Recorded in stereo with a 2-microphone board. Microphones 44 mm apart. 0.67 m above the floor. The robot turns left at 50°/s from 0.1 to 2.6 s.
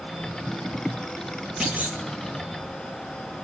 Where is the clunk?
25° right (ahead or behind), 2.5 m; by 2.0 s 45° right (ahead or behind), 2.5 m.